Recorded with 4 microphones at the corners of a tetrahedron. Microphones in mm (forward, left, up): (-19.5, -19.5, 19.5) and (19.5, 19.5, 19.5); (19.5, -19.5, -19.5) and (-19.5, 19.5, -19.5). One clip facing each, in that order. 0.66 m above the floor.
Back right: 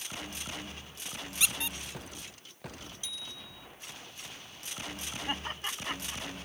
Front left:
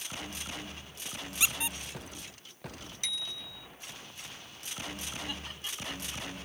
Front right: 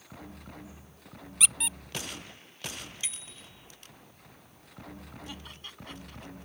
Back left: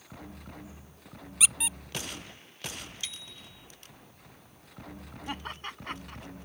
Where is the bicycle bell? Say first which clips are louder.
Front left 9 dB, even; 25° left.